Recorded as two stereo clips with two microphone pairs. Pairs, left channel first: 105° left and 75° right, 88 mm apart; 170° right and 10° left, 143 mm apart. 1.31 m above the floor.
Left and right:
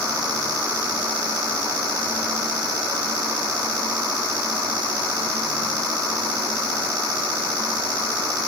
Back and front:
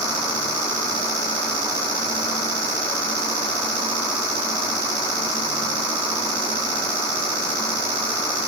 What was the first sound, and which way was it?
Only background noise.